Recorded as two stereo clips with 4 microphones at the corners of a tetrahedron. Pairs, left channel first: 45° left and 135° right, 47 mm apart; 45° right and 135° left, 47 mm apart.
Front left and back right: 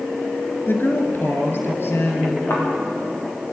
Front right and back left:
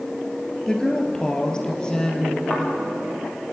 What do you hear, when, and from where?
0.7 s a woman speaking: 30° left, 2.5 m; by 2.4 s 25° left, 3.5 m
2.5 s a thud: 35° left, 8.5 m